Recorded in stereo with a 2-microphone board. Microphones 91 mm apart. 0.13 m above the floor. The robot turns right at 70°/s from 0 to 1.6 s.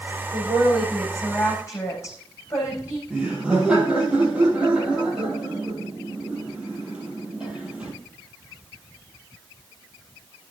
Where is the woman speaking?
55° right, 6.5 m; by 3.0 s 35° left, 6.5 m.